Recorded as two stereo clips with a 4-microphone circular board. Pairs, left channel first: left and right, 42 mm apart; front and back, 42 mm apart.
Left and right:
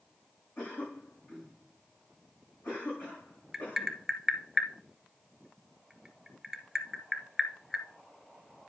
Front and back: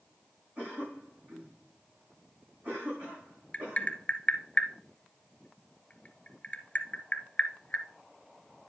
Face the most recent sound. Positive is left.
turn(degrees=-10)